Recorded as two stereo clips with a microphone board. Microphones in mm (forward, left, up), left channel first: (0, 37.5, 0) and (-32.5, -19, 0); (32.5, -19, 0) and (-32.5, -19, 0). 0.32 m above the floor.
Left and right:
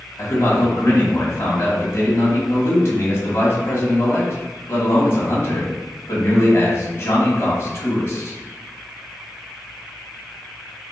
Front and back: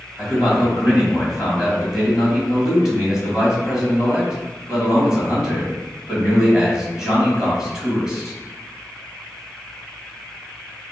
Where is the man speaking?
100° left, 1.7 m.